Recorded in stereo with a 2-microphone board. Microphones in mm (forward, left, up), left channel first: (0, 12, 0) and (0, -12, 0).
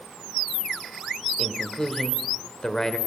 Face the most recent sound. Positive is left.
turn(degrees=25)  # may be behind; listen again after turning